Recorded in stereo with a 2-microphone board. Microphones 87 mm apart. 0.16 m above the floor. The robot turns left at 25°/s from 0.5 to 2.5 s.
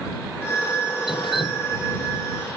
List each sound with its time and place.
1.1 s dripping: 70° left (ahead or behind); by 1.7 s 80° left